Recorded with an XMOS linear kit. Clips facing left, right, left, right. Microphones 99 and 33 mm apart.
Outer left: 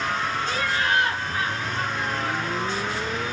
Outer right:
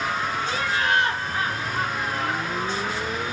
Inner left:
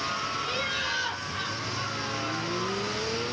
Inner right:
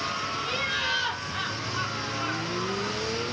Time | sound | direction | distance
0.4 | laughter | 5° right (ahead or behind) | 1.4 m